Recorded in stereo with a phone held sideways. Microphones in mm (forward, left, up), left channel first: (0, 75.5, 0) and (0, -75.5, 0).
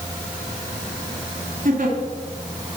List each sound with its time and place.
1.6 s a giggle: 65° right (ahead or behind), 1.6 m